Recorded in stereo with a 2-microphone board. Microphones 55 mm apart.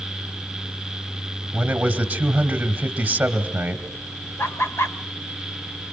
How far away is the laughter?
About 1.5 m.